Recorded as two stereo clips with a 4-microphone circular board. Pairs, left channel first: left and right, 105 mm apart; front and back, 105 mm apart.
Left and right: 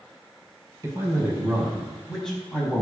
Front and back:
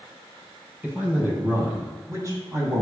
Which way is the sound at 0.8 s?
120° right.